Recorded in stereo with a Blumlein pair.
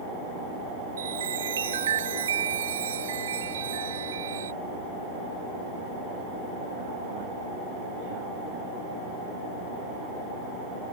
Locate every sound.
1.0 s a chime: 65° right